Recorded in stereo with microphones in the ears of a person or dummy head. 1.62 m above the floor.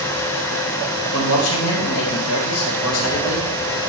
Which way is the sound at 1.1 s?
85° left.